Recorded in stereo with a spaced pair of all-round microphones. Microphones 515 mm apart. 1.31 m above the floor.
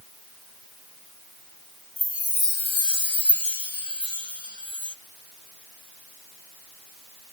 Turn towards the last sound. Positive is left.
turn(degrees=55)  # may be behind; listen again after turning